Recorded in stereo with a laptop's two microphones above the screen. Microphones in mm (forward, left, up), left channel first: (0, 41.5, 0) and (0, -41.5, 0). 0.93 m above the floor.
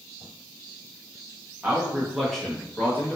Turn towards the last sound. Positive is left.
turn(degrees=25)  # may be behind; listen again after turning